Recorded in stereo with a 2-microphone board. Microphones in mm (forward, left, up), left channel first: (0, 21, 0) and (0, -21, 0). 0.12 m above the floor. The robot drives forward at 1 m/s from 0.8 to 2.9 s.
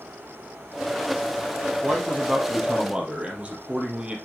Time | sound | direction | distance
1.8 | a man speaking | 20° right (ahead or behind) | 3.5 m